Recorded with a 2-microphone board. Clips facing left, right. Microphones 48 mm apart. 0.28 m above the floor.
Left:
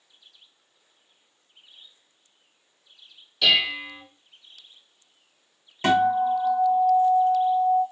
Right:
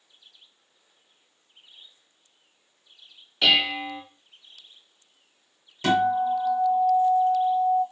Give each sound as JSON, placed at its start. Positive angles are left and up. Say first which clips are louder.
{"t": 3.4, "sound": "dishes clattering", "louder": "even", "side_deg": -30, "distance_m": 1.2}
{"t": 5.8, "sound": "a guitar", "louder": "left 2 dB", "side_deg": 35, "distance_m": 1.2}